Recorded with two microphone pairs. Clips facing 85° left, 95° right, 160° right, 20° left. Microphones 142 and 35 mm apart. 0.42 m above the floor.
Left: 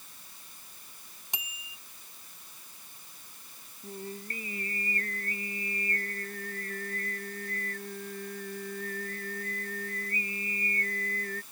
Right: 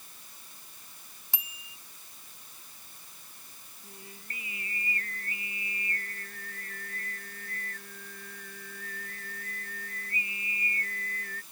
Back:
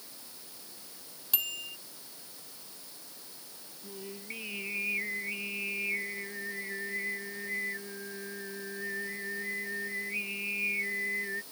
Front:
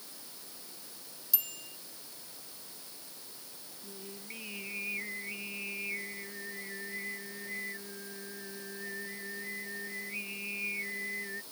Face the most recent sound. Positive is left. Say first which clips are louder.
# left 11 dB, back 4 dB
turn(degrees=130)